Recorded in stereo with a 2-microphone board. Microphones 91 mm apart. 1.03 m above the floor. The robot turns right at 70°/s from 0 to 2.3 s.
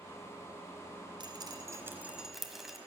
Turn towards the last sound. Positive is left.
turn(degrees=0)  # may be behind; listen again after turning